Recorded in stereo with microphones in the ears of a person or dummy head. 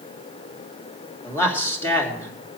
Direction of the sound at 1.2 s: 20° left (ahead or behind).